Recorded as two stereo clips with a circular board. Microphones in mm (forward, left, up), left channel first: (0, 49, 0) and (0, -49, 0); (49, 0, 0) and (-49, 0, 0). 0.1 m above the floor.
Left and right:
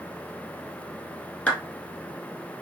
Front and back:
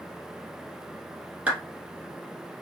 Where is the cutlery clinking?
I don't hear cutlery clinking.